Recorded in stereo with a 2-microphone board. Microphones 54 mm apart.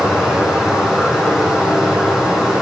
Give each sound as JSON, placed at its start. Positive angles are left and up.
{"t": 0.0, "sound": "running water", "side_deg": -15, "distance_m": 4.5}